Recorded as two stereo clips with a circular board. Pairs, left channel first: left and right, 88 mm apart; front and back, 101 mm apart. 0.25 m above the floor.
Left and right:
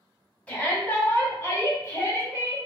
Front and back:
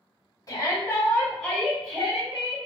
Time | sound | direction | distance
0.5 | a shout | 25° left | 1.8 m